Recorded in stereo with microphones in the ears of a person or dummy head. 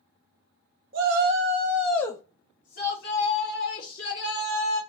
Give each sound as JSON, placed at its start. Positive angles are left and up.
{"t": 0.9, "sound": "a shout", "side_deg": -50, "distance_m": 0.7}